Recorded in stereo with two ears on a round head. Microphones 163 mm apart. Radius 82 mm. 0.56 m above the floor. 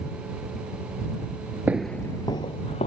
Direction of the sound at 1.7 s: 10° right (ahead or behind).